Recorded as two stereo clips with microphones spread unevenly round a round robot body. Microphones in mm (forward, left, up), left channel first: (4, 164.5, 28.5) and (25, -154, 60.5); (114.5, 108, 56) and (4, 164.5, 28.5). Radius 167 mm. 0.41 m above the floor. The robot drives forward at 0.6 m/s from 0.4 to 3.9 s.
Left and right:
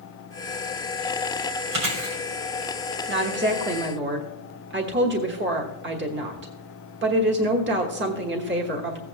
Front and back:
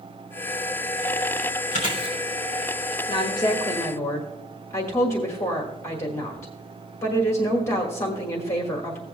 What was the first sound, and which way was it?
Chewing, 70° right.